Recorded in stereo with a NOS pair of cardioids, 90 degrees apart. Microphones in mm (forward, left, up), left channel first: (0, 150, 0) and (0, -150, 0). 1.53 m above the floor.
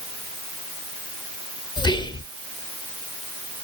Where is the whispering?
15° left, 0.6 m.